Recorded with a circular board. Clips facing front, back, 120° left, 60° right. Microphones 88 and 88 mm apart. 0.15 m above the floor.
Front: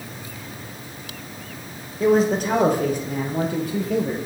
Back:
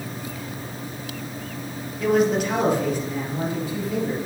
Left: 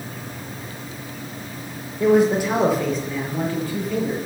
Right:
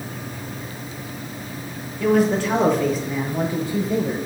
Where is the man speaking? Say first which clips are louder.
Front 2 dB, left 2 dB; 60° left, 2.5 m; by 4.2 s 10° right, 3 m.